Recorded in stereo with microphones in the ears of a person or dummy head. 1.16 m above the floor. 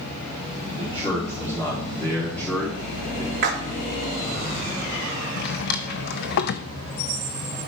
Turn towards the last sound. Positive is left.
turn(degrees=60)  # may be behind; listen again after turning